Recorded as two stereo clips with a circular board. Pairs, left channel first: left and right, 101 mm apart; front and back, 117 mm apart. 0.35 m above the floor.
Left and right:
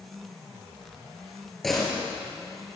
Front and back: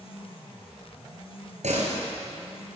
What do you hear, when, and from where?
1.6 s a door slam: straight behind, 4.5 m